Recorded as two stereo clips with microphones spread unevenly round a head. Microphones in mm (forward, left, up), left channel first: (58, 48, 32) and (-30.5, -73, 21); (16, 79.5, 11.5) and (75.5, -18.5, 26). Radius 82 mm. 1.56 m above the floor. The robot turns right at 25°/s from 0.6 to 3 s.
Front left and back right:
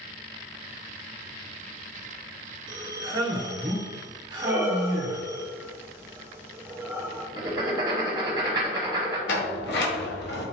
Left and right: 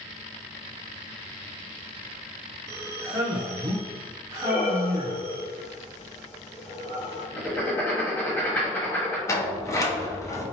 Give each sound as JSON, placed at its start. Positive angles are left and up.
{"t": 2.7, "sound": "a man speaking", "azimuth_deg": -90, "distance_m": 0.5}
{"t": 4.4, "sound": "breathing", "azimuth_deg": 155, "distance_m": 0.7}
{"t": 7.4, "sound": "writing", "azimuth_deg": -165, "distance_m": 1.0}
{"t": 9.3, "sound": "a sliding door", "azimuth_deg": 60, "distance_m": 1.0}